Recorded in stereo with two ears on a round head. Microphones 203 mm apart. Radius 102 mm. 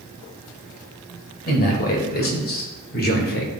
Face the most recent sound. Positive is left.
turn(degrees=45)  # may be behind; listen again after turning